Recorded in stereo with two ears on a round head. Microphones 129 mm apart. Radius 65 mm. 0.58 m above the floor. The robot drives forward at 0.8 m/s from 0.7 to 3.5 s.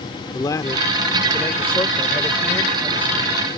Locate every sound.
0.3 s a man speaking: 25° left (ahead or behind); by 3.4 s 10° left (ahead or behind)